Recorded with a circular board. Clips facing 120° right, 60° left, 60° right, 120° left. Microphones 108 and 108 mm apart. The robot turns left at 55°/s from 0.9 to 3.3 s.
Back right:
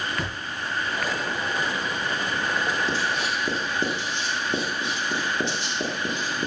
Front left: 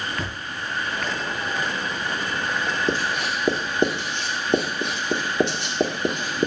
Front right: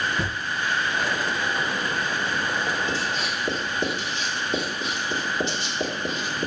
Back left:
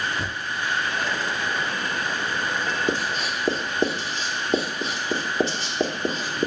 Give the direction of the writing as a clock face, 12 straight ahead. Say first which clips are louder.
Front left 2 dB, back left 2 dB; 9 o'clock.